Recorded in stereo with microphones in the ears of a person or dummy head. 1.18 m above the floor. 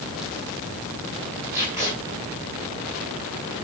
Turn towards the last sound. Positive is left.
turn(degrees=-15)  # may be behind; listen again after turning